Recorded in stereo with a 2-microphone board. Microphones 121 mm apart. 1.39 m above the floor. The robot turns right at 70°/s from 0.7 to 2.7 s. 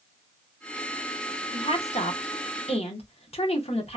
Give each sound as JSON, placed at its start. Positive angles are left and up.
{"t": 1.5, "sound": "a woman speaking", "side_deg": 40, "distance_m": 0.9}